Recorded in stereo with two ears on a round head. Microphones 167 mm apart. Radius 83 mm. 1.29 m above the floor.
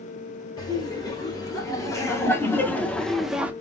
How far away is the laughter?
About 2 m.